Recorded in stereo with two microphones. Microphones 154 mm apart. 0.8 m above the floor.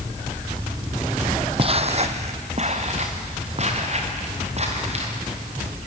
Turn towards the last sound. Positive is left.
turn(degrees=-45)  # may be behind; listen again after turning